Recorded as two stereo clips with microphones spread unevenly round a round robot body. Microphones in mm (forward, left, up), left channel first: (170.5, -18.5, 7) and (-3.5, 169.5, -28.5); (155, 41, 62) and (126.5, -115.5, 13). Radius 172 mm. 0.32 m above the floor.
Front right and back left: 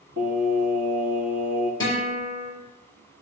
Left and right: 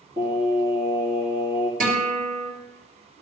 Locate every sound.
0.2 s singing: 170° right, 7.5 m
1.8 s a guitar: 125° right, 7 m